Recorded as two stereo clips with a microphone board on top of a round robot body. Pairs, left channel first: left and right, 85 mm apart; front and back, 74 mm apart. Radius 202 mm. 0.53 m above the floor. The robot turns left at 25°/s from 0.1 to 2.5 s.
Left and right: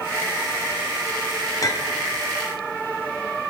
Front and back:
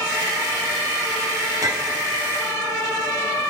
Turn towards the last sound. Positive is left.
turn(degrees=115)